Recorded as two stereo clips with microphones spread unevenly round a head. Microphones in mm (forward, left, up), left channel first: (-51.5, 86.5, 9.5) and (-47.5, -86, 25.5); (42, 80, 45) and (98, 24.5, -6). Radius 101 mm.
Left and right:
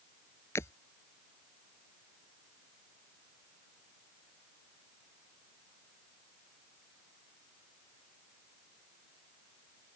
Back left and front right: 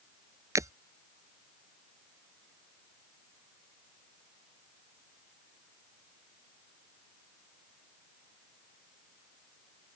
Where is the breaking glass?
10° left.